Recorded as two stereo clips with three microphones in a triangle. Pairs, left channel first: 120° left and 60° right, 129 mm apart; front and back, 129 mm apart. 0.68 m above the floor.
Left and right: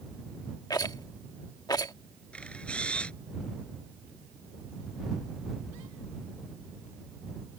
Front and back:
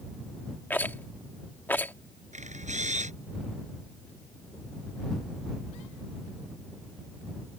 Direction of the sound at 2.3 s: 160° right.